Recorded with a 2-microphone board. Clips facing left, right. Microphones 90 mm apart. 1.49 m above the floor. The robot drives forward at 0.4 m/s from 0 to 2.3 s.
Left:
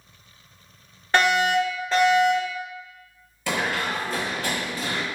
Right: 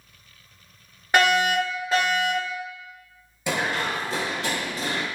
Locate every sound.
1.1 s a fire alarm: 10° right (ahead or behind), 1.6 m
3.5 s running footsteps: 20° right (ahead or behind), 1.5 m; by 5.0 s 35° right (ahead or behind), 2.5 m